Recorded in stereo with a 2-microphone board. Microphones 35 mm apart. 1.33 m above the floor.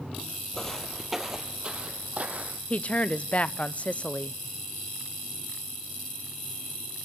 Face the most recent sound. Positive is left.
turn(degrees=40)  # may be behind; listen again after turning